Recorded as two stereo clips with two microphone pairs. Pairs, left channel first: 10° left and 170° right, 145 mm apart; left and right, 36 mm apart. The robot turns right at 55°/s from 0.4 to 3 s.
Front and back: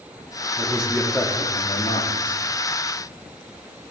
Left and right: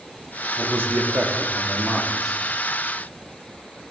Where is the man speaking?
100° right, 1.9 m; by 2.4 s 5° left, 1.9 m.